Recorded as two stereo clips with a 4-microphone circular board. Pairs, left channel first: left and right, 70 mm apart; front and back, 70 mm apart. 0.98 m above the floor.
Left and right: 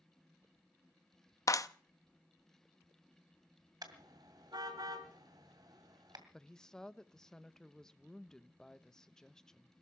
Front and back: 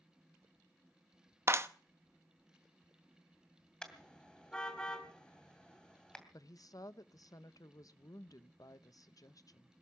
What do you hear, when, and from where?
1.5 s a clap: 130° left, 0.7 m
3.8 s a car horn: 80° right, 2.5 m
6.3 s a woman speaking: 10° left, 0.7 m